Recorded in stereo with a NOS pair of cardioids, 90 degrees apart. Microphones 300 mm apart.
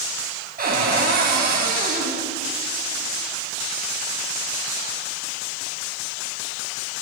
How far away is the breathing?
No breathing in this recording.